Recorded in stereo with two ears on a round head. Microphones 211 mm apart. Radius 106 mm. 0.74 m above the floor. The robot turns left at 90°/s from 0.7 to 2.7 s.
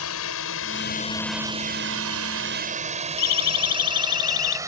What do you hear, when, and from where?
0.0 s a drone: 60° left (ahead or behind); by 4.7 s 15° right (ahead or behind)
3.2 s a siren: 75° left (ahead or behind); by 4.6 s 80° left